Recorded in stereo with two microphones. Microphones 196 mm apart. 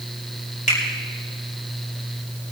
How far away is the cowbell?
No cowbell in this recording.